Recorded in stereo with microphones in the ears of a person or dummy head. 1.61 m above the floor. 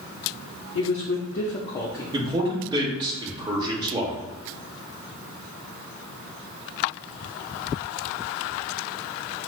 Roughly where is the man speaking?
Centre.